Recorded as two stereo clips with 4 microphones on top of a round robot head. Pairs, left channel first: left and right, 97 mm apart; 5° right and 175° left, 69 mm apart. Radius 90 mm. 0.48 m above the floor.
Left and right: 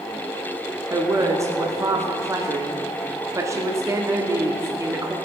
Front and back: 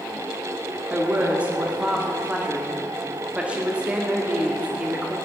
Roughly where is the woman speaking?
Behind right.